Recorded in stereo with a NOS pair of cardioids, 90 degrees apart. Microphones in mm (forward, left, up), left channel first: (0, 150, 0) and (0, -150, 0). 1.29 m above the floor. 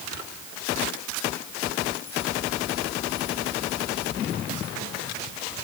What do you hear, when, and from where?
Only background noise.